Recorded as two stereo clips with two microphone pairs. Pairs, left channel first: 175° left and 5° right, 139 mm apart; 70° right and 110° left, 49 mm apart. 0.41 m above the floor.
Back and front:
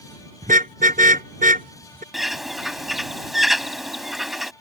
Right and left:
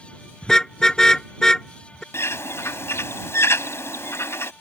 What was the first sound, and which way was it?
A car horn, 5° left.